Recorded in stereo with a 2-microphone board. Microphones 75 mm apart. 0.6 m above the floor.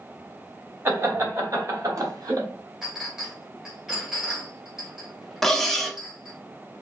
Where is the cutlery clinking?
Centre (ahead or behind), 0.6 m.